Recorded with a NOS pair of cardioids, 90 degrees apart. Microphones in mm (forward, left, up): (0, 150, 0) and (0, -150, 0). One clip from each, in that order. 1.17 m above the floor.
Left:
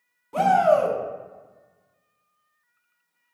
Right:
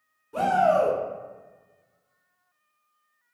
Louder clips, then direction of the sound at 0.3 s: Left 3 dB; 40° left.